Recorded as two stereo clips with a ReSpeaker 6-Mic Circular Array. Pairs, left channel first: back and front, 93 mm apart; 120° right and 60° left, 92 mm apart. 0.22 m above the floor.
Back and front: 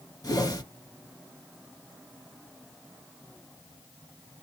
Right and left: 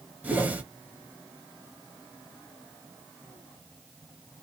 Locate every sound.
0.2 s a whoosh: 135° left, 1.5 m